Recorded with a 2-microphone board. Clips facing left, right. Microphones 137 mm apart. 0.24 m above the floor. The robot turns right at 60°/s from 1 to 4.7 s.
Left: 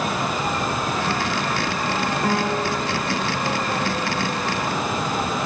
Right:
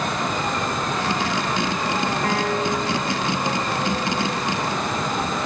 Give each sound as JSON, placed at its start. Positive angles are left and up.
{"t": 2.2, "sound": "a piano", "azimuth_deg": 5, "distance_m": 9.5}